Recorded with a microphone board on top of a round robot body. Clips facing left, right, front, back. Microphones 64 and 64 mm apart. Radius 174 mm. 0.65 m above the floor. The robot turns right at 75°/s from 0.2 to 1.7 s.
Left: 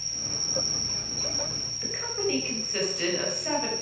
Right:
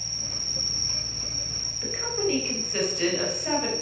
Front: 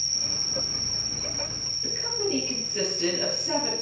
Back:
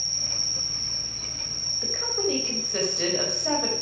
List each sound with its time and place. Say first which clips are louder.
0.0 s an insect: left 1 dB, front 1 dB; 65° right, 3 m; by 3.8 s 45° left, 3 m
1.8 s a woman speaking: right 3 dB, back 2 dB; straight behind, 5 m